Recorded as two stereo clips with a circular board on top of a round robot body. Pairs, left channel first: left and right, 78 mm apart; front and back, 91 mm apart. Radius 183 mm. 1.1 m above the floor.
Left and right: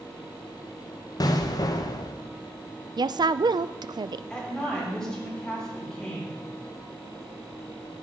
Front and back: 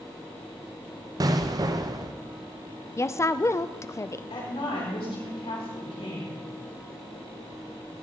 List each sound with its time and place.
1.2 s an explosion: 130° left, 0.7 m
3.0 s a woman speaking: 60° right, 0.5 m
4.3 s a woman speaking: 5° left, 7 m